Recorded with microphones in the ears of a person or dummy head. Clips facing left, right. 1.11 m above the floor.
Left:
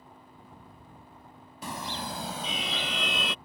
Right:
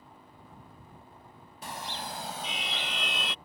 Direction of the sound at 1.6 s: 75° left (ahead or behind).